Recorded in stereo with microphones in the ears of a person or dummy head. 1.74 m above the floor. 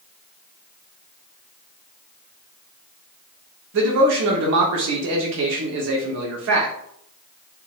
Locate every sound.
3.7 s a man speaking: 65° right (ahead or behind), 0.9 m